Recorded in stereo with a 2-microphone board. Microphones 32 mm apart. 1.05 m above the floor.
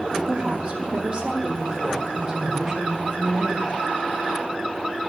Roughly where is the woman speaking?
Right.